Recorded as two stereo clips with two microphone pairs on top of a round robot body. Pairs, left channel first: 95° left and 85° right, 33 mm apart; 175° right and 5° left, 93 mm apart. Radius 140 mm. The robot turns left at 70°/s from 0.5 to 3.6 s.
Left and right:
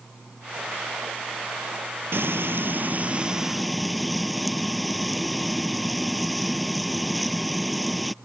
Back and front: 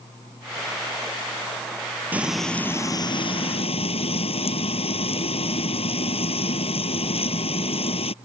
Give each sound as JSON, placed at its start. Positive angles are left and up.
{"t": 2.1, "sound": "frying", "azimuth_deg": -70}